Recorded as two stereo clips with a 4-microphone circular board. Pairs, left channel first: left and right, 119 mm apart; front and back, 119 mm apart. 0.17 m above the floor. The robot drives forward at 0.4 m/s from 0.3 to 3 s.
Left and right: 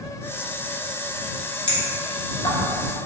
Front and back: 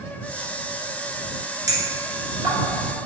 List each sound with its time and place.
1.7 s a clink: 120° left, 1.8 m; by 2.5 s 130° left, 2 m